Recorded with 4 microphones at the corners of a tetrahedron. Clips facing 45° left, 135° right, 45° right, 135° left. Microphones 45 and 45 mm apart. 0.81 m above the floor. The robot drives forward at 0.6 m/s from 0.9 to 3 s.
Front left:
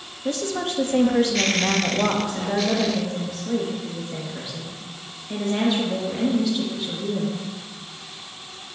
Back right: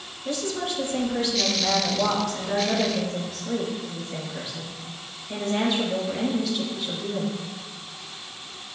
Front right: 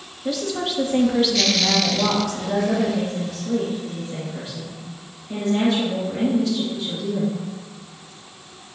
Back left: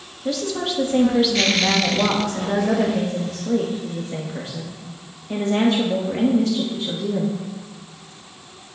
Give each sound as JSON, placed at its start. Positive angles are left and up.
{"t": 0.2, "sound": "a woman speaking", "azimuth_deg": 40, "distance_m": 1.2}